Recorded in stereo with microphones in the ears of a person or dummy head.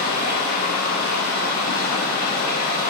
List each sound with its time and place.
0.0 s running water: 65° left (ahead or behind), 4 m